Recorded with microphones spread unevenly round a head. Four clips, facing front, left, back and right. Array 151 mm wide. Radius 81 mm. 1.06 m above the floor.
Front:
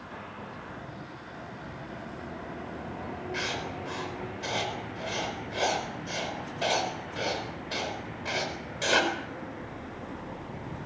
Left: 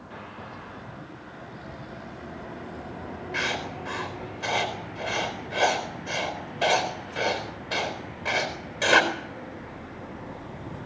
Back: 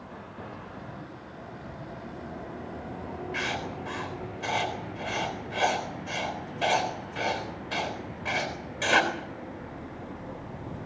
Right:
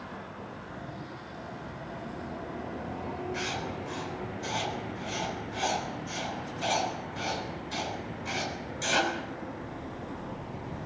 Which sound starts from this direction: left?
Writing, at 3.3 s.